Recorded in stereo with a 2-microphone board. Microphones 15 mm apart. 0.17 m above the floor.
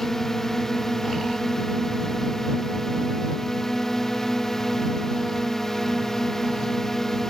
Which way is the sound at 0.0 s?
30° left (ahead or behind).